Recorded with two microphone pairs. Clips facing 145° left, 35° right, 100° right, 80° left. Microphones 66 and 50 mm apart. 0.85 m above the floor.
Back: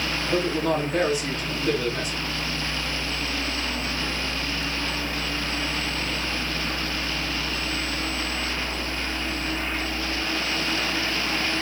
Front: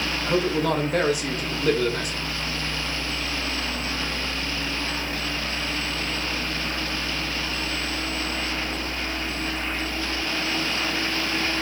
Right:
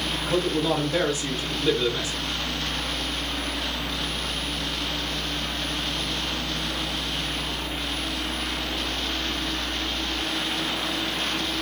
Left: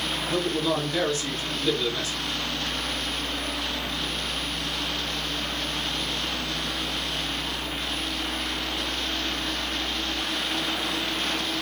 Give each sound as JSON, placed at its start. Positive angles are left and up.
{"t": 0.3, "sound": "a man speaking", "azimuth_deg": -30, "distance_m": 1.0}